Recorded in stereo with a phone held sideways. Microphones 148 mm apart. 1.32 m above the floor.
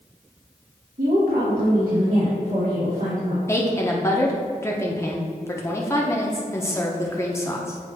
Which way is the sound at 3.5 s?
20° left (ahead or behind).